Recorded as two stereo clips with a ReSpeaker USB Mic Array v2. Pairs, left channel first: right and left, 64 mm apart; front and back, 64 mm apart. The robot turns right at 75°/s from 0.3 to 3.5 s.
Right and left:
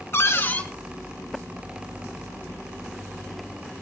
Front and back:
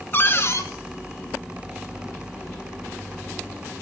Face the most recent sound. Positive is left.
turn(degrees=-165)